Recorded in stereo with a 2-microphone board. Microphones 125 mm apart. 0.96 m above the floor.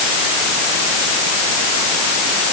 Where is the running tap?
No running tap in this recording.